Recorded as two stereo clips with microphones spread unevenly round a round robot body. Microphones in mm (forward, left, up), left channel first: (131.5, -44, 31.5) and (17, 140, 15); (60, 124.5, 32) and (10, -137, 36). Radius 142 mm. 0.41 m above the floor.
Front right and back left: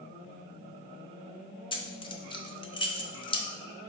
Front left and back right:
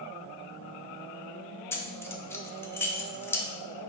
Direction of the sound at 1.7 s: 5° left.